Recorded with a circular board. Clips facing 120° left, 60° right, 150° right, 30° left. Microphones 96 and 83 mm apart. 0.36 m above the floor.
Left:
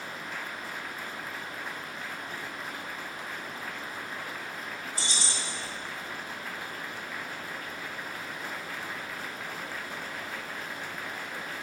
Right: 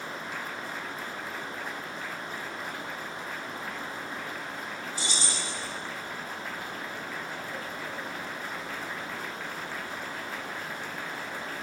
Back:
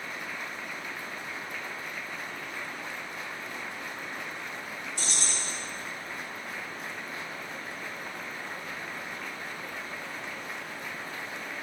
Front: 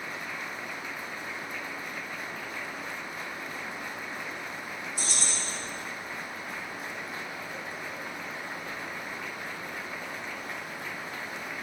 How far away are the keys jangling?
About 0.8 m.